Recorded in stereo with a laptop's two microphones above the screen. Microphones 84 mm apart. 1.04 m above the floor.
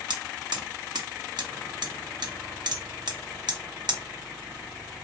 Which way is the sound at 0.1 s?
65° right (ahead or behind).